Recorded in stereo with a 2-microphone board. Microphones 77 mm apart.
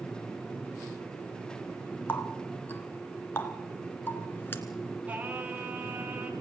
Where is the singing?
20° right (ahead or behind), 3.5 m.